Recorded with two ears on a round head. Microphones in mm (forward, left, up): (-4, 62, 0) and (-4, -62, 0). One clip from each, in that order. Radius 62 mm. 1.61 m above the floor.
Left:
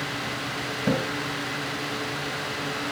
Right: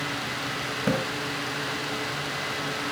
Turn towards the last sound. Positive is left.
turn(degrees=-30)  # may be behind; listen again after turning